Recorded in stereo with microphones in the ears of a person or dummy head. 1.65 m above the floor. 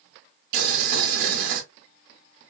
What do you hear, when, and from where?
0.5 s boiling: 55° right (ahead or behind), 1.4 m